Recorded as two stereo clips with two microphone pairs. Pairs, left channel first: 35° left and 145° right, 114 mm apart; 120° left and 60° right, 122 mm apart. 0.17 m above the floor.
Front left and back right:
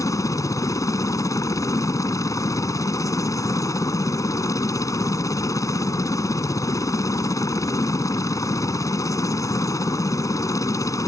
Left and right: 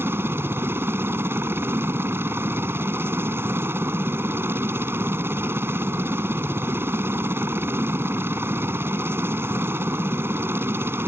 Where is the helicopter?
Straight ahead.